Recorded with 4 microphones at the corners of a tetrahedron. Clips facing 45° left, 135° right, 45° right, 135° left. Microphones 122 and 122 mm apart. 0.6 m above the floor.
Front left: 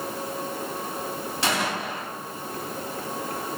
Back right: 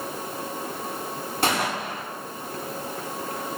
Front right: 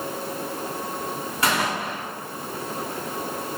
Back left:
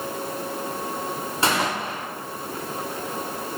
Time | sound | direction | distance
1.4 | a gunshot | 165° right | 1.6 m